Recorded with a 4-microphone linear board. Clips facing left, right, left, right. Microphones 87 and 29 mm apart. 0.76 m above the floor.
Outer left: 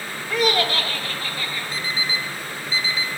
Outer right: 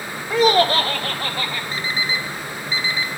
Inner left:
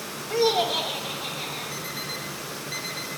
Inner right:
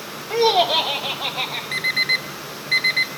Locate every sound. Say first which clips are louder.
0.3 s laughter: outer right 6 dB, inner right 6 dB; 20° right (ahead or behind), 0.6 m; by 1.6 s 55° right (ahead or behind), 1.0 m
1.7 s an alarm clock: outer right 3 dB, inner right 13 dB; 70° right (ahead or behind), 0.7 m